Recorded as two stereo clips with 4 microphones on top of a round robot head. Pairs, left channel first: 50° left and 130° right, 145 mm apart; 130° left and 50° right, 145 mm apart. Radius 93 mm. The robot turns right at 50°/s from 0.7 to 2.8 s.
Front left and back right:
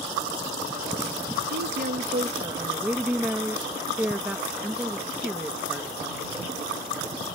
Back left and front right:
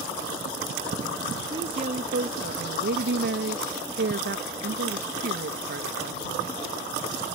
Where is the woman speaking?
115° right; by 6.2 s 50° right.